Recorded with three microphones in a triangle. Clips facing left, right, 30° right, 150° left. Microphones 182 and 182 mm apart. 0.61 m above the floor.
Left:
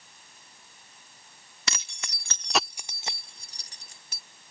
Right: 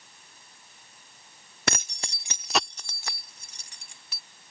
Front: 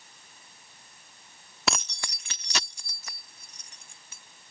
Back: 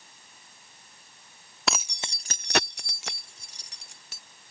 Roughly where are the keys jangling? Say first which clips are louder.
Right 8 dB, even; behind right.